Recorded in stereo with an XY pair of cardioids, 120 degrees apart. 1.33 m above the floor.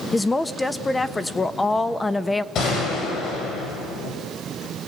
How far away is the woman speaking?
About 1.2 m.